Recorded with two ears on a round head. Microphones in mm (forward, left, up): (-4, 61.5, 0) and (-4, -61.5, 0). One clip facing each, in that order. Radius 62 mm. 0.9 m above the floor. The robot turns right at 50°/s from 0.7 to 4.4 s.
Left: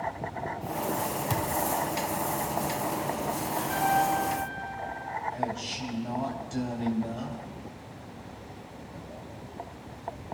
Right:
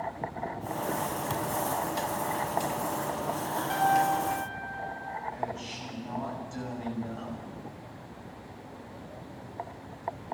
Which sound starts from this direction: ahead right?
A piano, at 3.7 s.